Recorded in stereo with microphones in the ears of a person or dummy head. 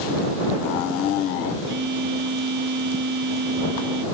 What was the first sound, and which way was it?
A phone buzzing, 50° right (ahead or behind).